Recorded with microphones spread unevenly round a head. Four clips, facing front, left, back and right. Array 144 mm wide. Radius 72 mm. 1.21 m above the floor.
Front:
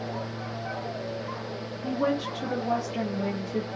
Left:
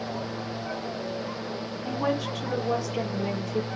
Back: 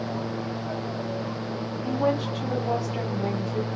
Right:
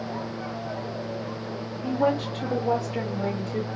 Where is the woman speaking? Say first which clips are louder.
Right 4 dB, back 2 dB; 60° right, 3 m.